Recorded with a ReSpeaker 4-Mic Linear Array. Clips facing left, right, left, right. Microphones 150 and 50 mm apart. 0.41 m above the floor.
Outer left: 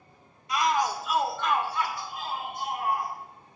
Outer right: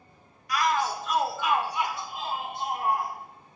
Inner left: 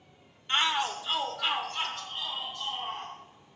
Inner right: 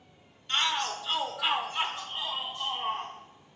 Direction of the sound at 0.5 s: 25° left (ahead or behind).